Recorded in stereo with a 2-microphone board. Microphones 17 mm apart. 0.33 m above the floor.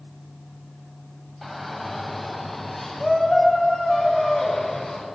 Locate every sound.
1.4 s a shout: 5° left (ahead or behind), 2 m; by 5.0 s 25° left (ahead or behind), 4 m